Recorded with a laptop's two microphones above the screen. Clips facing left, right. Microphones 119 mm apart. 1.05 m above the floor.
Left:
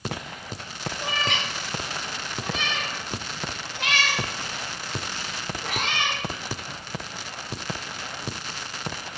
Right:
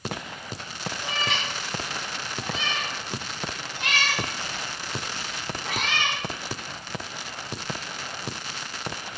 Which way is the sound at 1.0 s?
65° left (ahead or behind).